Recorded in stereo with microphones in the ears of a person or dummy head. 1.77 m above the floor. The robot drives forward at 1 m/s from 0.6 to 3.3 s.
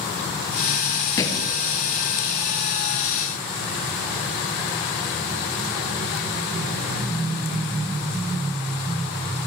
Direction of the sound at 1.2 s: 20° left (ahead or behind).